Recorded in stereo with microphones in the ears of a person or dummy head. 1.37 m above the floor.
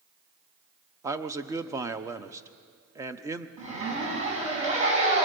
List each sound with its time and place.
1.0 s a man speaking: 15° right (ahead or behind), 0.7 m
3.6 s a zipper: 35° right (ahead or behind), 5 m